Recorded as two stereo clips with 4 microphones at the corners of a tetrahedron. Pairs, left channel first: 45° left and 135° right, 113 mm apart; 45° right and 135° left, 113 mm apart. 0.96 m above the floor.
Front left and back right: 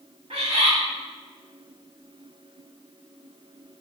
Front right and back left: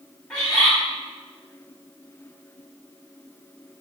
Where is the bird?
125° right, 1.8 m.